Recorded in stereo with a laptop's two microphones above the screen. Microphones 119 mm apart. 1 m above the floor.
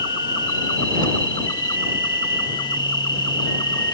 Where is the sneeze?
I don't hear a sneeze.